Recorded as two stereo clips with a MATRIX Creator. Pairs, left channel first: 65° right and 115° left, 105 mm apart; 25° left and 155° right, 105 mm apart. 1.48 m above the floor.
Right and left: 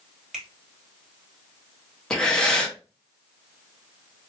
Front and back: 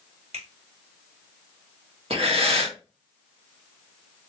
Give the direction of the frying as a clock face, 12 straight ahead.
No frying in this recording.